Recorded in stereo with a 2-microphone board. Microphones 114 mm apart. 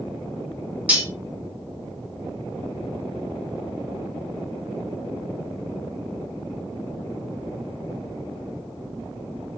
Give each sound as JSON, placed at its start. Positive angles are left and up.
{"t": 0.9, "sound": "cutlery clinking", "side_deg": -10, "distance_m": 1.3}